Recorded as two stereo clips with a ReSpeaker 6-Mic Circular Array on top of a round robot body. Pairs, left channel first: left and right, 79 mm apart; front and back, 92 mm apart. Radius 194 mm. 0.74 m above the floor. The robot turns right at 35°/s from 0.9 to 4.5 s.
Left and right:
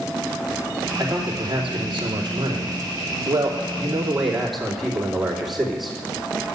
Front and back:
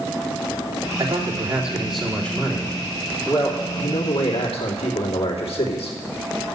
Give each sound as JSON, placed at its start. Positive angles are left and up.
{"t": 1.0, "sound": "a man speaking", "azimuth_deg": -125, "distance_m": 3.0}